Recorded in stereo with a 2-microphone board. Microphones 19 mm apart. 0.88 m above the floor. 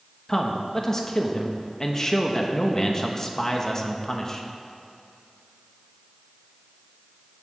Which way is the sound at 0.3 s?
30° left (ahead or behind).